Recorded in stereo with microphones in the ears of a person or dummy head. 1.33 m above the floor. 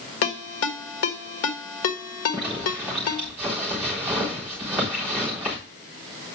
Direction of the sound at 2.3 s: 5° right (ahead or behind).